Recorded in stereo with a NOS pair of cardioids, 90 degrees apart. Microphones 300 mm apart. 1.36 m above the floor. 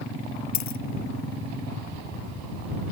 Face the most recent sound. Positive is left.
turn(degrees=70)